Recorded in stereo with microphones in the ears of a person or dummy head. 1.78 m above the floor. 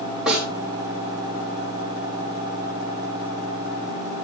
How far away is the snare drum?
About 6 m.